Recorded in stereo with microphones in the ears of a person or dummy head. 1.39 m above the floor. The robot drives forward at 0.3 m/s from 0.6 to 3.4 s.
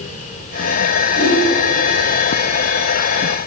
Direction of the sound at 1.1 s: 75° left (ahead or behind).